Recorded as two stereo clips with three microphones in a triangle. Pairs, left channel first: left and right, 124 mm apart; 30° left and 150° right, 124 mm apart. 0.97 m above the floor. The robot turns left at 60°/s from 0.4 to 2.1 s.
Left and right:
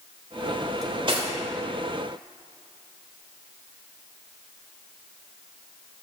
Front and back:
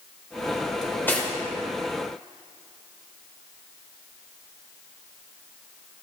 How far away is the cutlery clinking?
About 2.5 m.